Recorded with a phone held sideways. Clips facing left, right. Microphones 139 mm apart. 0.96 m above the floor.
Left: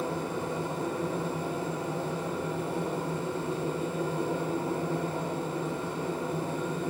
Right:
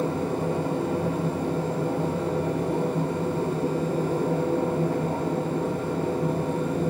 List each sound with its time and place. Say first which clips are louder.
0.0 s a machine running: right 6 dB; 60° right (ahead or behind), 7 m